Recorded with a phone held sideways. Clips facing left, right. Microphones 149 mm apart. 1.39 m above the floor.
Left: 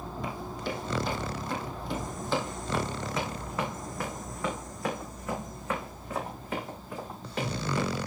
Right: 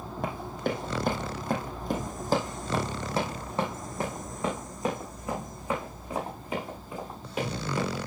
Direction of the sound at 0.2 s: 60° right (ahead or behind).